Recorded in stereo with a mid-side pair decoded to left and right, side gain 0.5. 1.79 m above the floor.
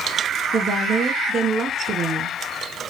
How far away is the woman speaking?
About 1.5 m.